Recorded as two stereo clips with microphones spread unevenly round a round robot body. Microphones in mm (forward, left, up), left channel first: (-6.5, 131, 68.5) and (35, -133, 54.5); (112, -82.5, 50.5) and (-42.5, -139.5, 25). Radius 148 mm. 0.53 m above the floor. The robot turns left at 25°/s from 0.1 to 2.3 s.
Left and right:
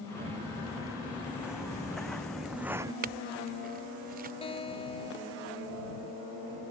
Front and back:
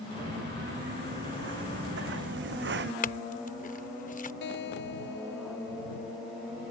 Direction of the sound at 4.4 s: 30° left.